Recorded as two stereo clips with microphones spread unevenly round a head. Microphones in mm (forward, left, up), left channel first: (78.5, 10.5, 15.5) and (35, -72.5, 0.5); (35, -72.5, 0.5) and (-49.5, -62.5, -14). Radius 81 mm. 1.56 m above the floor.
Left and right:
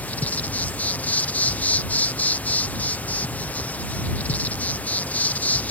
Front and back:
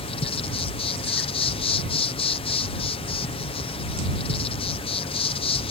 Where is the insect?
15° right.